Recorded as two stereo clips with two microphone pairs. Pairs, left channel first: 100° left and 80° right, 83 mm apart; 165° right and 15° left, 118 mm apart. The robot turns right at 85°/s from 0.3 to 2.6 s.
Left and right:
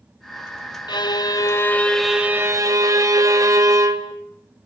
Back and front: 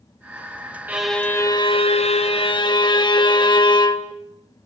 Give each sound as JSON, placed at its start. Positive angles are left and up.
{"t": 0.9, "sound": "a violin", "azimuth_deg": 90, "distance_m": 1.7}